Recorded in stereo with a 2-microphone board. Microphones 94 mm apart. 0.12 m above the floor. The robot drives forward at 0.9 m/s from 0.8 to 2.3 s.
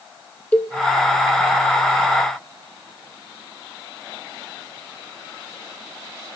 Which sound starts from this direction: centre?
A cowbell, at 0.5 s.